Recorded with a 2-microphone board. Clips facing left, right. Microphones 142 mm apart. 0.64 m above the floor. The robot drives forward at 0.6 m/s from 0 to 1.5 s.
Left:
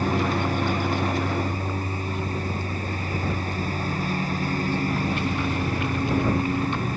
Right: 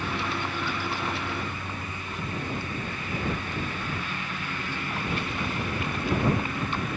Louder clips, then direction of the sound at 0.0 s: Left 7 dB; 40° left (ahead or behind).